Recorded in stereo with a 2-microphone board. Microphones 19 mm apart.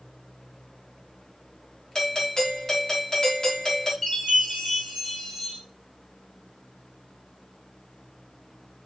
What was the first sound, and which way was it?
A doorbell, 35° left (ahead or behind).